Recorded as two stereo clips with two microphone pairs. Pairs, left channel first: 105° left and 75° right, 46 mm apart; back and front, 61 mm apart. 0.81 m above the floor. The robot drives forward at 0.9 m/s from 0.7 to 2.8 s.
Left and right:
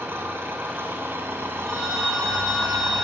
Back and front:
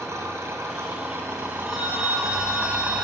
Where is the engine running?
40° right, 4 m; by 3.0 s 70° right, 2.5 m.